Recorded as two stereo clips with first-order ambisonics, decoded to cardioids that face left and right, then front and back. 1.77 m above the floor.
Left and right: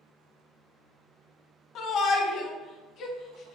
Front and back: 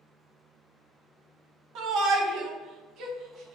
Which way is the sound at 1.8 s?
140° left.